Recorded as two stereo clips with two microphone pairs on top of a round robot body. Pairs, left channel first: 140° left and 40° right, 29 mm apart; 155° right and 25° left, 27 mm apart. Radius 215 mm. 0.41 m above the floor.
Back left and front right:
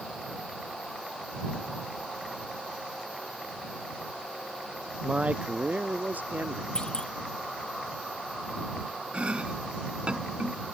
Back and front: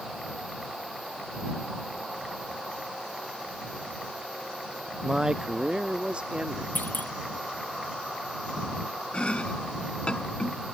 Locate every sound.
5.0 s a man speaking: 30° right; by 6.7 s 20° right
6.8 s a clunk: 160° right
9.1 s chopping: 100° right